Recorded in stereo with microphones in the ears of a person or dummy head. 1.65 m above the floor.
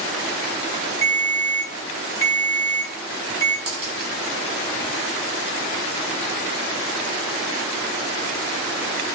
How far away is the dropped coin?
About 1.0 m.